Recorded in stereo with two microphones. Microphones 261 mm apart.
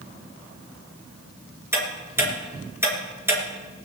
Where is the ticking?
10° right (ahead or behind), 3 m.